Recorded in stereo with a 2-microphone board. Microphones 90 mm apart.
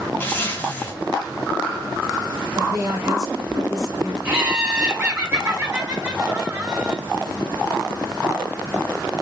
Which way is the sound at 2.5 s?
50° right (ahead or behind).